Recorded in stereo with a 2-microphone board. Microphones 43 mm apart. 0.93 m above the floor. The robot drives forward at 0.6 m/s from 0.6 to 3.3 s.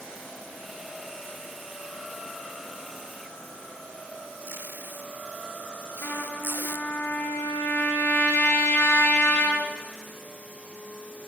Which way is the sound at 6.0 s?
65° left (ahead or behind).